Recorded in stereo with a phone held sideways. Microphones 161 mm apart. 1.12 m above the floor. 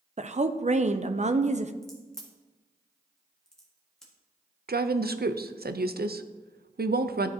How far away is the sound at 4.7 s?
About 0.5 m.